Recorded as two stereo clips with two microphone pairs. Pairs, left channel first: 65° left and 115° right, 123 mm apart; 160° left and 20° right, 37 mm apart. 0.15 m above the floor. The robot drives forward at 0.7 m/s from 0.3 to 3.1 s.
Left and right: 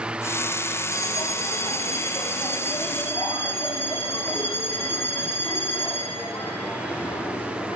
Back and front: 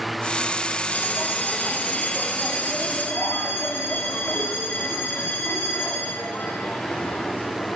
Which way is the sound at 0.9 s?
125° left.